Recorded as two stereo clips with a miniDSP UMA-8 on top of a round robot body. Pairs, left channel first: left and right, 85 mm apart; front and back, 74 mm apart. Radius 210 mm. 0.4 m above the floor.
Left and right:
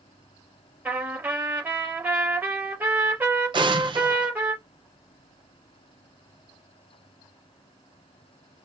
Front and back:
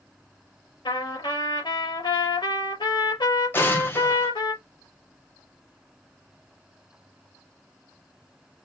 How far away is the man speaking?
No man speaking in this recording.